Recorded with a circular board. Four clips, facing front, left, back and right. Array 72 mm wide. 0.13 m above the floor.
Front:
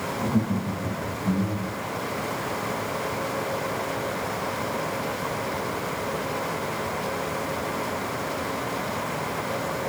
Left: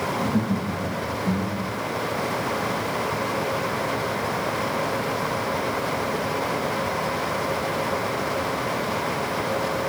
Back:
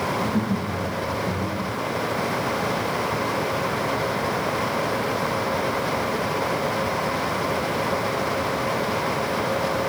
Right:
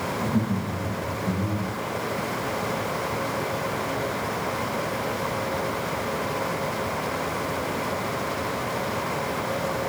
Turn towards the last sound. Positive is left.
turn(degrees=30)